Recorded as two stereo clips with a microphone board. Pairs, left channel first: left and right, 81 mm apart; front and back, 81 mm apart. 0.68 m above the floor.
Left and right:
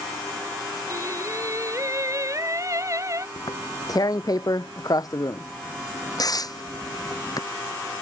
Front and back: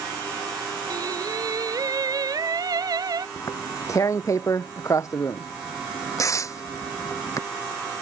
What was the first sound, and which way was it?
Singing, 140° right.